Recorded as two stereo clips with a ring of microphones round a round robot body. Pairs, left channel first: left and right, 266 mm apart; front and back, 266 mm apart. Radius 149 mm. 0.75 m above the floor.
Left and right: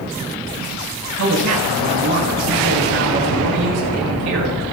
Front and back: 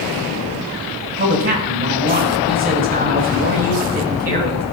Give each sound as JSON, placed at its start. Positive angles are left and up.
{"t": 1.2, "sound": "a man speaking", "azimuth_deg": -125, "distance_m": 4.0}